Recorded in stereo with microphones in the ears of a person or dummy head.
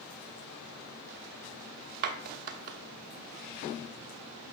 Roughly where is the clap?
Right.